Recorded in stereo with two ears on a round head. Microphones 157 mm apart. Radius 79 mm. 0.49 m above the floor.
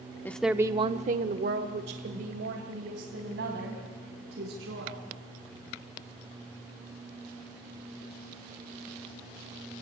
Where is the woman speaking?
10° left (ahead or behind), 0.8 m; by 5.0 s 70° right (ahead or behind), 4.5 m.